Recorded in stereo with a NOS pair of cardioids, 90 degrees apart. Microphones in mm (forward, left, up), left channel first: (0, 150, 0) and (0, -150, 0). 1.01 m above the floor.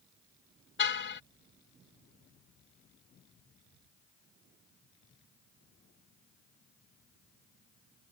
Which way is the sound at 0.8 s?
40° left.